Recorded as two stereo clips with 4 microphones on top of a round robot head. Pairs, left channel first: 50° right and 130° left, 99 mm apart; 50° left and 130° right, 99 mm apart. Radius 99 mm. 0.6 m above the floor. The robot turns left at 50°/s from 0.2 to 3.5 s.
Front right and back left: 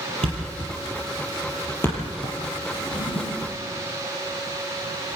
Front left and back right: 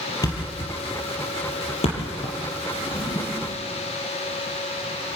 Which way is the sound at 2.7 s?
15° left.